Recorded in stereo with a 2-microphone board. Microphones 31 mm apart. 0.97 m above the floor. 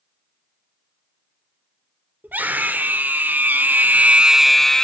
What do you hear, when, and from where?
2.2 s a scream: 75° right (ahead or behind), 2.5 m; by 4.8 s 20° left (ahead or behind), 1.0 m